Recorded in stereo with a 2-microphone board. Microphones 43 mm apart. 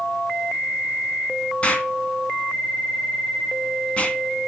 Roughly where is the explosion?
Left.